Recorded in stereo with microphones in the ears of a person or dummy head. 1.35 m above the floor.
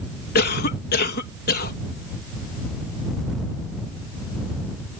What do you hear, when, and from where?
0.3 s a cough: 50° left (ahead or behind)